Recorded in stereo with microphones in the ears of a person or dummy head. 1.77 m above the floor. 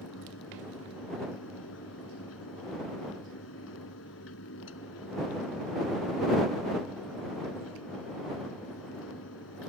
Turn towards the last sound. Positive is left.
turn(degrees=70)  # may be behind; listen again after turning